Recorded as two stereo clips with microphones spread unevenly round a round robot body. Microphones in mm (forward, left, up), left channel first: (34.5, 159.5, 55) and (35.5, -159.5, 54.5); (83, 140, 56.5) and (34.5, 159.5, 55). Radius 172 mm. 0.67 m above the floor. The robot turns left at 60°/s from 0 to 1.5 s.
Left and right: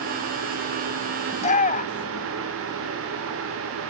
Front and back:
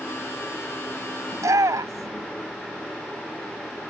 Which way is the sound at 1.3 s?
170° left.